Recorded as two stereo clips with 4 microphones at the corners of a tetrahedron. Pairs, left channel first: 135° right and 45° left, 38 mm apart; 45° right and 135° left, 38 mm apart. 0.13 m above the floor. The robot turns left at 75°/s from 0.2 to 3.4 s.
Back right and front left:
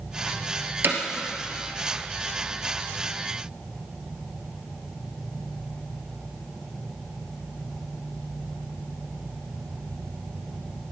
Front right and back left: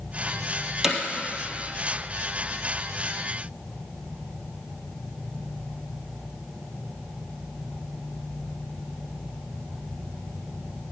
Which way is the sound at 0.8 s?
60° left.